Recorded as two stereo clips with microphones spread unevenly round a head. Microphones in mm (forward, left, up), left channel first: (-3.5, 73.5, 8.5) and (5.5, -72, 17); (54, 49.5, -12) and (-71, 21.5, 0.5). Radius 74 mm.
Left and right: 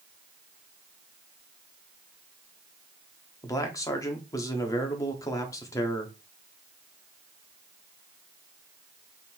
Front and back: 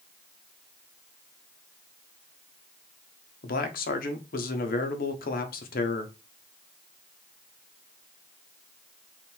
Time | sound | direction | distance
3.4 | a man speaking | 25° left | 0.9 m